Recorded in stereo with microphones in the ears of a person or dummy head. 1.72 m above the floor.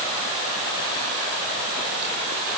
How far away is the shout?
I don't hear a shout.